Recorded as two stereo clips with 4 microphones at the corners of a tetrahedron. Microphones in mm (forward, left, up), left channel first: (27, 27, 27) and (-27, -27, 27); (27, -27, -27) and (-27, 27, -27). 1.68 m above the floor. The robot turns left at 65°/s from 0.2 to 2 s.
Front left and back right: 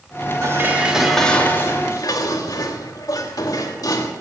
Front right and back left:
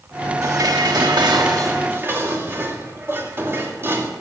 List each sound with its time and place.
0.4 s dishes clattering: straight behind, 2.5 m; by 4.1 s 75° left, 2.5 m